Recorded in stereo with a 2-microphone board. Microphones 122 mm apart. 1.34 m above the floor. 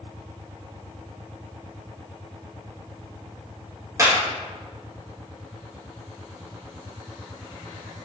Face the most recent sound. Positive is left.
turn(degrees=-25)  # may be behind; listen again after turning